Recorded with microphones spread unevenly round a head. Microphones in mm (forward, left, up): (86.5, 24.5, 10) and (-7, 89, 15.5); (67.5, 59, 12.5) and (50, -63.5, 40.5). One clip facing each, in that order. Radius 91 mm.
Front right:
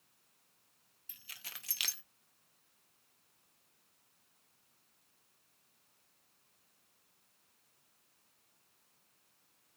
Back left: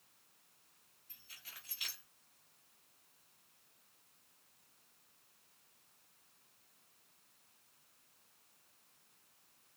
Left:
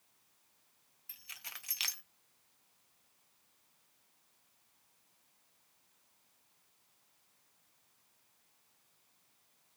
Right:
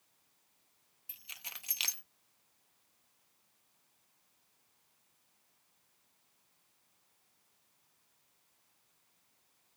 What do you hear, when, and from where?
1.1 s keys jangling: 35° right, 0.6 m